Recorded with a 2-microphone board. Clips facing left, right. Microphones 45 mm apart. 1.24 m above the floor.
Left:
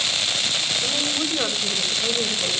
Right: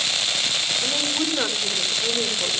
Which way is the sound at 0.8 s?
35° right (ahead or behind).